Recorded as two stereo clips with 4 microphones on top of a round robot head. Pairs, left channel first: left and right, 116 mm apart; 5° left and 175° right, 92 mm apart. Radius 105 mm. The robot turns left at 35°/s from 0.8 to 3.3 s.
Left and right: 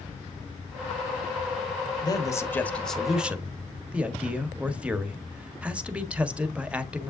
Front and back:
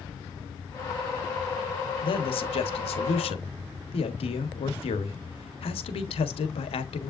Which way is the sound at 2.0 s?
35° left.